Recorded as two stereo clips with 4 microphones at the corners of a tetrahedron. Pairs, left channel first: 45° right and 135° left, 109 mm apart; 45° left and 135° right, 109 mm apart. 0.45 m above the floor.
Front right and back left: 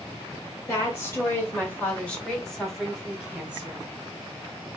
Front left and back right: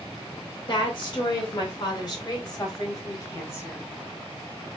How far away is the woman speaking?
About 2 m.